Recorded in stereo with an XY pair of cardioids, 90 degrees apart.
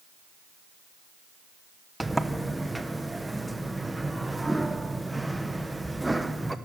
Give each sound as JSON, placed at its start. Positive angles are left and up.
{"t": 2.0, "sound": "a sliding door", "azimuth_deg": -10, "distance_m": 1.3}